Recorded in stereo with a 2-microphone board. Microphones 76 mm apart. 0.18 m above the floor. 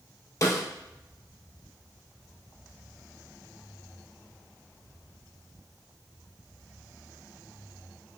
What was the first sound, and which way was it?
A snare drum, 50° left (ahead or behind).